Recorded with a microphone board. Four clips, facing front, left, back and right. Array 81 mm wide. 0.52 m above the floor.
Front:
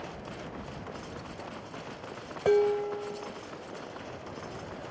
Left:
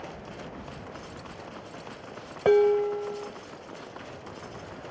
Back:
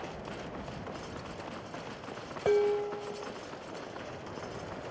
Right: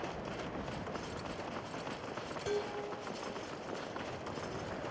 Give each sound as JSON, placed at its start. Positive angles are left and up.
{"t": 2.5, "sound": "dishes clattering", "azimuth_deg": 80, "distance_m": 1.3}